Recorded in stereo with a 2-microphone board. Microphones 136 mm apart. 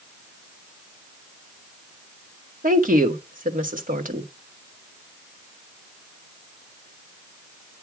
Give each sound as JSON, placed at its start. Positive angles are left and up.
{"t": 2.6, "sound": "a woman speaking", "side_deg": -80, "distance_m": 1.8}